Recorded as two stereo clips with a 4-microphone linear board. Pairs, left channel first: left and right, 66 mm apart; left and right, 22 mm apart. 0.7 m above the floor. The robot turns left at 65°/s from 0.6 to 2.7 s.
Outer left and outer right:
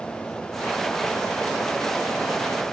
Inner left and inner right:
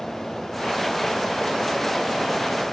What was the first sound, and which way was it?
Only background noise.